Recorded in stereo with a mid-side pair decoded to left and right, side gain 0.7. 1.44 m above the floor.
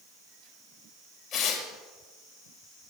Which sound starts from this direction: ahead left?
Tearing paper, at 1.3 s.